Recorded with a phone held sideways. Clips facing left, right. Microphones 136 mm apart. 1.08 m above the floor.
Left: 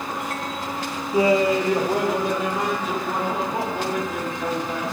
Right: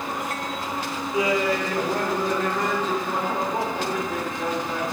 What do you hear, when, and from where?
1.1 s laughter: 35° left (ahead or behind), 0.6 m; by 4.8 s 10° left (ahead or behind), 3 m